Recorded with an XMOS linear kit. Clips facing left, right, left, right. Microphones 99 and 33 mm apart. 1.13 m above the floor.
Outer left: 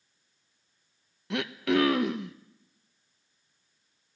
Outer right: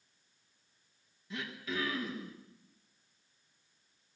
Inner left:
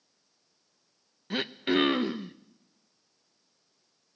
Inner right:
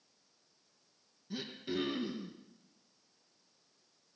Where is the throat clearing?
75° left (ahead or behind), 0.8 m.